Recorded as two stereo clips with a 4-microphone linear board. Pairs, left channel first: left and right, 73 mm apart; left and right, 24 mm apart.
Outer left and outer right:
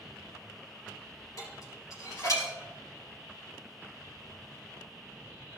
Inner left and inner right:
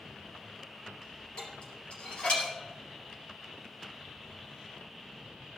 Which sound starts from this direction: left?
Dishes clattering, at 1.4 s.